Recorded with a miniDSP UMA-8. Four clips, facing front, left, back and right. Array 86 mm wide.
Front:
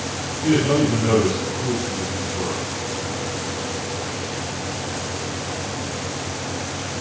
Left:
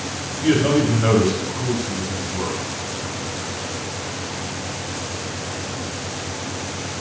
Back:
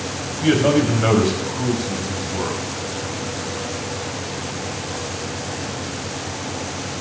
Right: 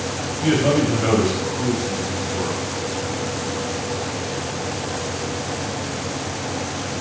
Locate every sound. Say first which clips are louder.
0.4 s a man speaking: left 1 dB, back 2 dB; 170° right, 3.5 m